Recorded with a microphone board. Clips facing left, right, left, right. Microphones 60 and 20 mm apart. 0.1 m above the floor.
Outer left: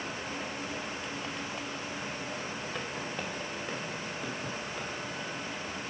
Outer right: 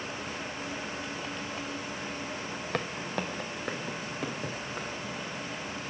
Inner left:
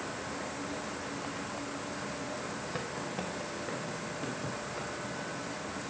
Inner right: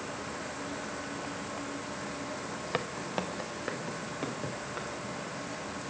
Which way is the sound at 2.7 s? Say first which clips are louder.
Outer right 7 dB, inner right 6 dB; 70° right (ahead or behind).